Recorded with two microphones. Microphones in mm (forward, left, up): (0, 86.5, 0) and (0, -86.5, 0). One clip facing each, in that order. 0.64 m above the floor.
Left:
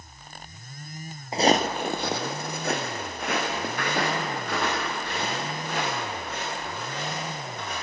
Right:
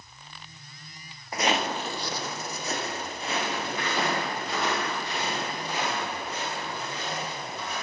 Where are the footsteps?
25° left (ahead or behind), 0.7 m; by 7.7 s 55° left (ahead or behind), 9.5 m.